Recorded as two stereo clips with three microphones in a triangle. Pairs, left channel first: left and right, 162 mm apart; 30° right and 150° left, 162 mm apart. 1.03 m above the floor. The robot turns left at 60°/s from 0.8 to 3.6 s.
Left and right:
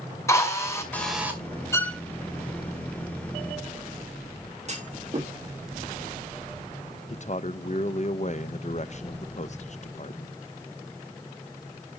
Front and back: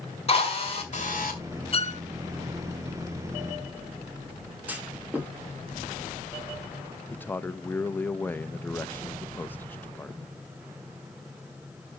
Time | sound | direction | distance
0.3 | a drill | 20° left | 2 m
1.7 | a violin | 15° left | 0.6 m
4.7 | a clunk | 130° right | 1.5 m
7.1 | a man speaking | 45° left | 0.6 m